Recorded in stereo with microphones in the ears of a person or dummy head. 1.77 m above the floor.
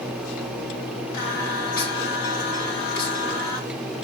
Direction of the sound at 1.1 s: 65° left (ahead or behind).